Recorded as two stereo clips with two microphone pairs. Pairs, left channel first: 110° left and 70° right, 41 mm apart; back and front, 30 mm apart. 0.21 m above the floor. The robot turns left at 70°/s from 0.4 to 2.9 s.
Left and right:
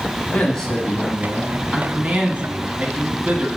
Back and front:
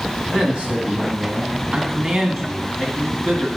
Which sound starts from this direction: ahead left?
A man speaking, at 0.3 s.